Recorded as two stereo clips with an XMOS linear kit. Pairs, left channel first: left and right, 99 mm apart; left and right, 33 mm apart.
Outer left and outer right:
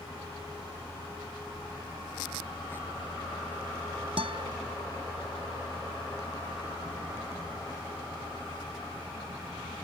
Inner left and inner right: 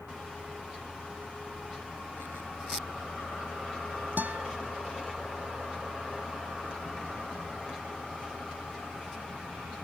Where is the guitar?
65° right (ahead or behind).